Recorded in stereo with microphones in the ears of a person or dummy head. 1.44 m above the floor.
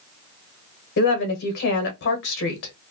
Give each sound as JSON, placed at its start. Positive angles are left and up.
{"t": 1.0, "sound": "a woman speaking", "side_deg": 65, "distance_m": 1.2}